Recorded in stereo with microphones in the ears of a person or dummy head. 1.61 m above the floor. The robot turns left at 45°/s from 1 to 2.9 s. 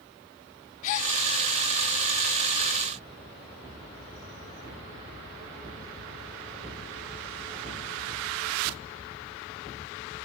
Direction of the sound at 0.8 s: 45° left (ahead or behind).